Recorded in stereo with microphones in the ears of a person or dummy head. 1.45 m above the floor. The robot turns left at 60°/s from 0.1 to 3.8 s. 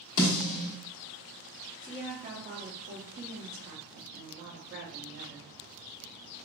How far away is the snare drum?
About 1.4 m.